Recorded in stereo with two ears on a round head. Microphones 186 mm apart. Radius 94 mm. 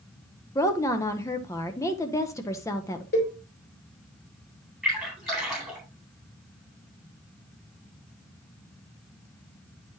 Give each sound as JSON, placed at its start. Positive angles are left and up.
{"t": 0.6, "sound": "a woman speaking", "side_deg": 15, "distance_m": 0.8}
{"t": 3.1, "sound": "a cowbell", "side_deg": 45, "distance_m": 3.5}
{"t": 4.8, "sound": "a splash", "side_deg": 0, "distance_m": 4.0}